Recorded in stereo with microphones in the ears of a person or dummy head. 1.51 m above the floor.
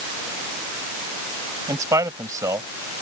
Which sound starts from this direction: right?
A man speaking, at 1.7 s.